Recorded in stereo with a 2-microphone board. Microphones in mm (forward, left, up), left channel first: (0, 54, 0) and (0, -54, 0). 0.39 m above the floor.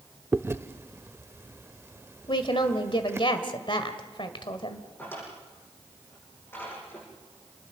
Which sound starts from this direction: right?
Chewing, at 0.3 s.